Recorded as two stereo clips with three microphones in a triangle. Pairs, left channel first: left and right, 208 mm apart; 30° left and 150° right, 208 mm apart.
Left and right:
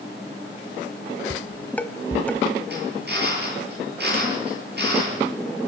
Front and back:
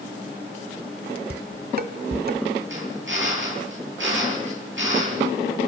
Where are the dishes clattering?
175° left, 1.5 m.